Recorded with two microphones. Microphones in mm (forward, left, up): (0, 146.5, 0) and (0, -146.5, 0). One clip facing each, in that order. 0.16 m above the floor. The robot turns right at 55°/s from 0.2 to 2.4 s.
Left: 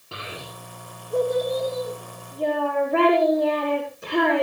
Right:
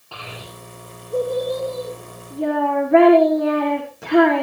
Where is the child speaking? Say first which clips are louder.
Even; 155° left, 7 m; by 4.4 s 85° right, 7 m.